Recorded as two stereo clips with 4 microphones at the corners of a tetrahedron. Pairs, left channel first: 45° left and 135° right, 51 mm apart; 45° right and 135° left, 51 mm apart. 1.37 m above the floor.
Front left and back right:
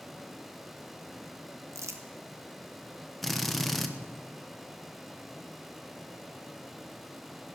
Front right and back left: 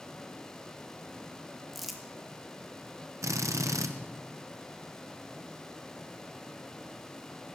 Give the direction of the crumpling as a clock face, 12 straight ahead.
5 o'clock.